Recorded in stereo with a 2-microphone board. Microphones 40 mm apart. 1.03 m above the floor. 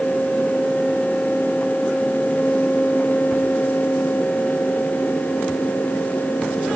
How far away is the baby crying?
I don't hear a baby crying.